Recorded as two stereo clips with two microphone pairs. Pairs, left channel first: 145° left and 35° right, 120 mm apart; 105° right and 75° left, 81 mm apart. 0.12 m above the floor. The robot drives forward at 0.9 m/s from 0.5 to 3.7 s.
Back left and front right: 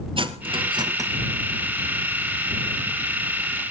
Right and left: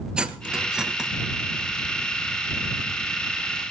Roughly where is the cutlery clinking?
Ahead.